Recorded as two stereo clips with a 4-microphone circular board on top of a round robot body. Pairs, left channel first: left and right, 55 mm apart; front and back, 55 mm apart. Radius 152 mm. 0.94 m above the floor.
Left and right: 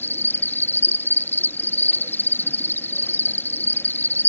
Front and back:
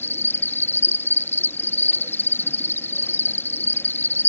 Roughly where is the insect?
Ahead left.